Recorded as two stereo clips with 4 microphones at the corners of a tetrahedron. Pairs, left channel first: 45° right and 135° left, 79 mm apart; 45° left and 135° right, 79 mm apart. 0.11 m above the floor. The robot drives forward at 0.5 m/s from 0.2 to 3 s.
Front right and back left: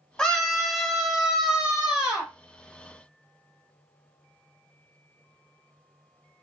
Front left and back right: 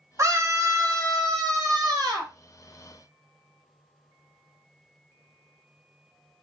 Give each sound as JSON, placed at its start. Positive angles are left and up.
{"t": 0.2, "sound": "a scream", "azimuth_deg": -115, "distance_m": 1.5}